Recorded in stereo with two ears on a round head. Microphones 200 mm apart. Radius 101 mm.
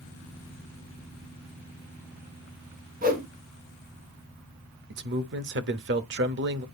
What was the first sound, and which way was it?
A whoosh, 40° right (ahead or behind).